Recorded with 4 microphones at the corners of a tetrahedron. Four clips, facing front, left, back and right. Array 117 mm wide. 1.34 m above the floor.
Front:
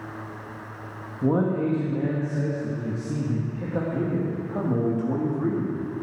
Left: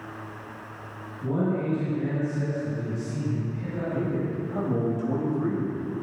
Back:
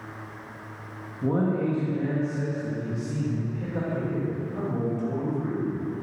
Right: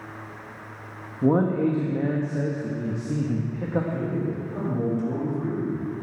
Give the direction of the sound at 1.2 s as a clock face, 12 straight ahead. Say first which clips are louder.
Right 6 dB, front 2 dB; 2 o'clock.